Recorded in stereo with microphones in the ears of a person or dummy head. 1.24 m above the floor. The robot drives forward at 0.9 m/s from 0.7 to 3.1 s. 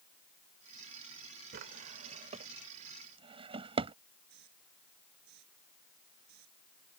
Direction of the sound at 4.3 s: 60° right (ahead or behind).